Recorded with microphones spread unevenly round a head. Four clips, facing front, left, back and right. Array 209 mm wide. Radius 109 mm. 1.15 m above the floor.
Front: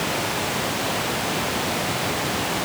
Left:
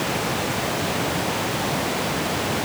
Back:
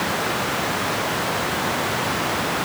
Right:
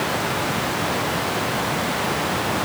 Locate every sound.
Only background noise.